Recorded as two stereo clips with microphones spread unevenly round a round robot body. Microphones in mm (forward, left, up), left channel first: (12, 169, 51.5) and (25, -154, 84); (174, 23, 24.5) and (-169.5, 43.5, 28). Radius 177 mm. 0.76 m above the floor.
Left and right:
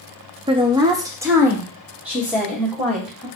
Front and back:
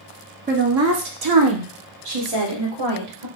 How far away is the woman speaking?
About 0.7 m.